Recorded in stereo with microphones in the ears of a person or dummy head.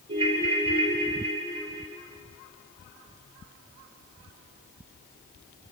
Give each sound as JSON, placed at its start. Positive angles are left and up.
{"t": 0.1, "sound": "a ringtone", "side_deg": -25, "distance_m": 3.5}